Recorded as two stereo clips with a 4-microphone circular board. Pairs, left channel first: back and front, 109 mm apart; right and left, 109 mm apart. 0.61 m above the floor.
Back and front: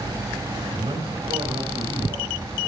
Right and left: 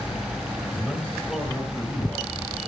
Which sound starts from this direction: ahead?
A man speaking, at 0.7 s.